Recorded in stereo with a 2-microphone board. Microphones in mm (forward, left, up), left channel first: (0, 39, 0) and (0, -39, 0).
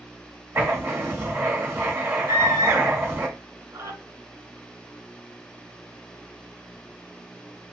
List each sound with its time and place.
0.6 s writing: 30° right (ahead or behind), 1.6 m
2.3 s a scream: 35° right (ahead or behind), 1.8 m